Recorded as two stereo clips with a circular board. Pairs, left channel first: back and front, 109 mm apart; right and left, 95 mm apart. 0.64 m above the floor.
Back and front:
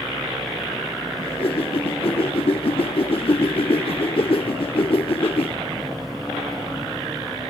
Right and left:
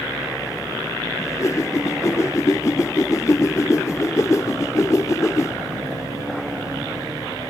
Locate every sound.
1.2 s a whoosh: 150° right